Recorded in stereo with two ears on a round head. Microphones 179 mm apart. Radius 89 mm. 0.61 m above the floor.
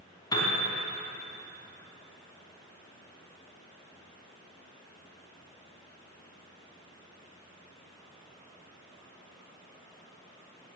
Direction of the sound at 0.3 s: 20° left (ahead or behind).